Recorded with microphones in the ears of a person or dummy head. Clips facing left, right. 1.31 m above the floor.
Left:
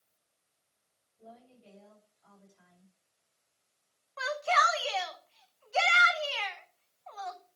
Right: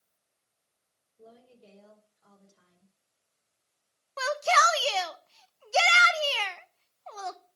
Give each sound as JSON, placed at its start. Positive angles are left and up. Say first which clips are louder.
{"t": 1.2, "sound": "a woman speaking", "louder": "even", "side_deg": -60, "distance_m": 6.0}
{"t": 4.2, "sound": "a shout", "louder": "right 4 dB", "side_deg": -55, "distance_m": 0.8}